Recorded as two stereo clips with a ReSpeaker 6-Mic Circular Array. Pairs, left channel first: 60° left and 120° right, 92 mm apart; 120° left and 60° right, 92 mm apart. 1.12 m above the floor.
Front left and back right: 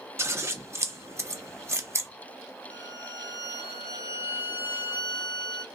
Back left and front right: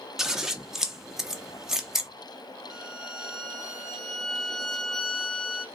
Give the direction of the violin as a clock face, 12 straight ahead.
11 o'clock.